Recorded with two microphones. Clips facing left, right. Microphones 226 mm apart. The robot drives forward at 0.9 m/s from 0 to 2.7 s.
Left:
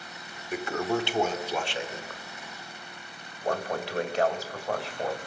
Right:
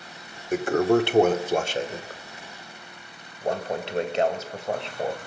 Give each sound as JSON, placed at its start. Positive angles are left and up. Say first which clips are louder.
{"t": 0.5, "sound": "a toilet flushing", "louder": "right 9 dB", "side_deg": -45, "distance_m": 0.9}